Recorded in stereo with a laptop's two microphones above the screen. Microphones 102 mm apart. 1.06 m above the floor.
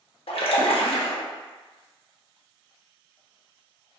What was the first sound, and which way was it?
A splash, 65° left (ahead or behind).